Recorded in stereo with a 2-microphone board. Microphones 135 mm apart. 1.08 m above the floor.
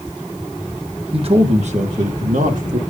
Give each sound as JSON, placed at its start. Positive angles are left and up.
{"t": 1.1, "sound": "a man speaking", "side_deg": -40, "distance_m": 1.0}